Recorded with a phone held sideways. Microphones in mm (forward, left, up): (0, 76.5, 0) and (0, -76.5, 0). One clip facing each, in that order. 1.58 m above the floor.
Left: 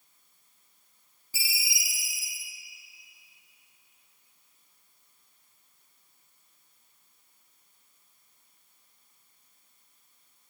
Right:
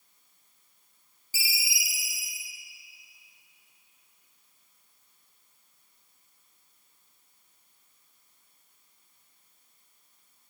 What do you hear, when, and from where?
1.3 s a ringtone: centre (ahead or behind), 0.7 m